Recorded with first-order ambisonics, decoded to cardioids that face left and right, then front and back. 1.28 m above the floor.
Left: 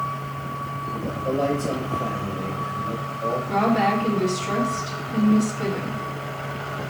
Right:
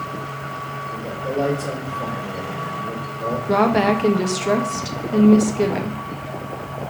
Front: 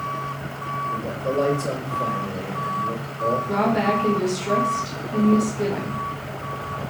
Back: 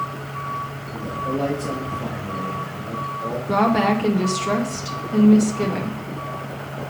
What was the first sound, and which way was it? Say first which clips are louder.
A man speaking: right 1 dB, back 1 dB; 40° right.